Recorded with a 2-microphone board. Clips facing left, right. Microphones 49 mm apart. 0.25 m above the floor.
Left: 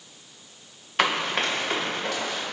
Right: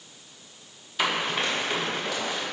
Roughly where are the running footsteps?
Left.